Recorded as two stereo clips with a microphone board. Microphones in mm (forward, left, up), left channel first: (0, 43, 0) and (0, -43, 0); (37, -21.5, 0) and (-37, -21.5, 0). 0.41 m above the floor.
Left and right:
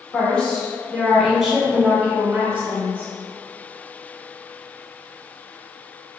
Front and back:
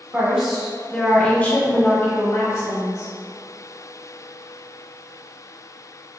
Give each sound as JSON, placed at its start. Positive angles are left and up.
{"t": 0.1, "sound": "a woman speaking", "azimuth_deg": 140, "distance_m": 0.9}